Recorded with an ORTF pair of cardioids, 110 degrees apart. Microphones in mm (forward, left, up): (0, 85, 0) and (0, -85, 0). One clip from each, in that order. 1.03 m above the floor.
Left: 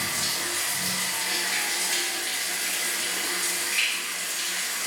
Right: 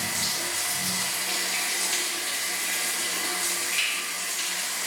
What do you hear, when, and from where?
0.0 s running water: straight ahead, 0.8 m